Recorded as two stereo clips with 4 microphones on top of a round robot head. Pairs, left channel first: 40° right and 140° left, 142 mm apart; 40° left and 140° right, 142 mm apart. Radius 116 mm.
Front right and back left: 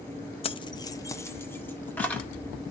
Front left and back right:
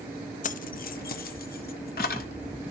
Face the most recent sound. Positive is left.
turn(degrees=40)